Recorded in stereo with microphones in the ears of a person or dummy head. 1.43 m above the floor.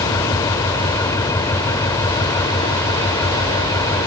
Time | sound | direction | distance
0.0 | an engine running | 15° left (ahead or behind) | ?